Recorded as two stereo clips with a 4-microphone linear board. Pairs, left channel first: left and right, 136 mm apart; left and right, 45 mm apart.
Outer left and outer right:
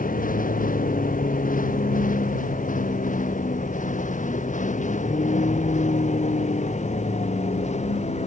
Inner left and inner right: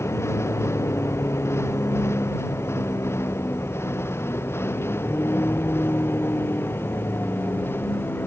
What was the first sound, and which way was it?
A vehicle, 85° left.